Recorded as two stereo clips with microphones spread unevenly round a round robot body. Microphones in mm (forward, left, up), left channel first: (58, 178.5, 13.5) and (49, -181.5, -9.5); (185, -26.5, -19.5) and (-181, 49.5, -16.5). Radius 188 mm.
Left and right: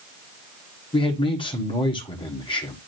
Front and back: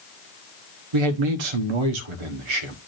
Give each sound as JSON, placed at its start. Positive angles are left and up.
{"t": 0.9, "sound": "a man speaking", "azimuth_deg": 165, "distance_m": 1.4}